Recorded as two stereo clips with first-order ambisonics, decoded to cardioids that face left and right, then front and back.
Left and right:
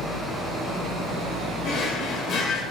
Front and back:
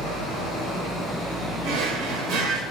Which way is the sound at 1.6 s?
140° left.